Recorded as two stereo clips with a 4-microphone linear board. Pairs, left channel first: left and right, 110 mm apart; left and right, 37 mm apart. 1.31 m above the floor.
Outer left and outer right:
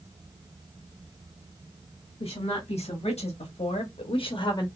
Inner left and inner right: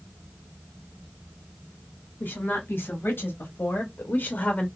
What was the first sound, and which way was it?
A woman speaking, 60° left (ahead or behind).